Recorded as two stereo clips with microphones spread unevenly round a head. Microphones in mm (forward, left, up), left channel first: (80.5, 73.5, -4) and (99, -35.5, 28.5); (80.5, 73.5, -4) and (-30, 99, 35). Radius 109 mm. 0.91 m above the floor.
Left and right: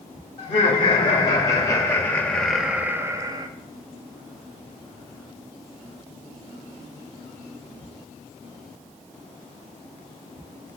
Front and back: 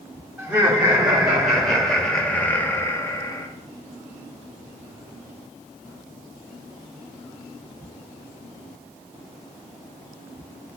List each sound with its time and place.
0.4 s laughter: 75° left, 2 m; by 3.5 s 25° right, 1.1 m